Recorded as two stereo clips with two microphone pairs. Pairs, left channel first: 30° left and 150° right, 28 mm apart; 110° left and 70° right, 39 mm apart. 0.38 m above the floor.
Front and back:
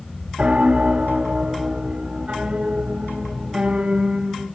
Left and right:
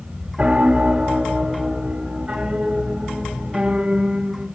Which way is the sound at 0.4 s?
135° right.